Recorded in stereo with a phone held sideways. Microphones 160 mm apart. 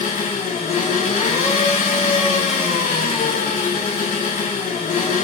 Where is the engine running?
45° left (ahead or behind), 3.5 m.